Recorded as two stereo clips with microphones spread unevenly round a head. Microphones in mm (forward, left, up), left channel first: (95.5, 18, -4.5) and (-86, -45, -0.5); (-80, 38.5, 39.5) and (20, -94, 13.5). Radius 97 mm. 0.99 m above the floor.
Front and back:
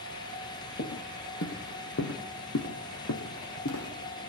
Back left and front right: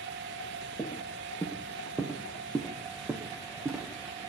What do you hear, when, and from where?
0.8 s footsteps: 60° left, 2 m; by 4.2 s 25° left, 3.5 m